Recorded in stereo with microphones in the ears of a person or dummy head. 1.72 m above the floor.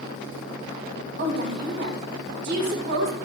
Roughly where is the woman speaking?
Right.